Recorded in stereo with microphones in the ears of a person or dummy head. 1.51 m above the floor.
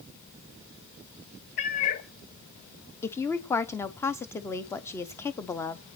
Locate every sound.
1.6 s a cat meowing: 40° left (ahead or behind), 0.9 m
3.0 s a woman speaking: 20° left (ahead or behind), 0.7 m